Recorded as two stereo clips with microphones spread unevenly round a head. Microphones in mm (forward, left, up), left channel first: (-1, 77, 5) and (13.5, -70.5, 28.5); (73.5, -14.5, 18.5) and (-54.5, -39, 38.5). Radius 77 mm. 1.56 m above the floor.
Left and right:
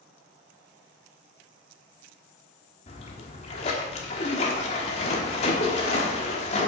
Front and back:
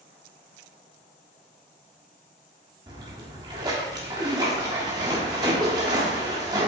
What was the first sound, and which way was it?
A splash, 145° left.